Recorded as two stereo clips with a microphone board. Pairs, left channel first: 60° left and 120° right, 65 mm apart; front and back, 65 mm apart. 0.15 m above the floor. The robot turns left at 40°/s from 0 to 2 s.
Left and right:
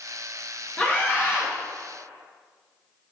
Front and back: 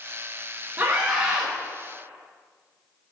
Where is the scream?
130° left, 2 m; by 1.5 s 100° left, 2 m.